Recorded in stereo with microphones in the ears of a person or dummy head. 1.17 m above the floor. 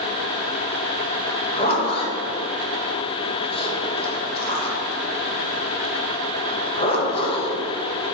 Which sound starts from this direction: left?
A zipper, at 1.3 s.